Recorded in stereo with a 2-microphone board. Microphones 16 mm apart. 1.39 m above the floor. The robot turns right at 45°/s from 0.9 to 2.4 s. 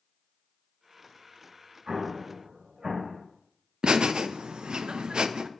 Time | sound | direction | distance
1.9 | an explosion | 75° right (ahead or behind) | 3 m
3.8 | laughter | 75° right (ahead or behind) | 0.6 m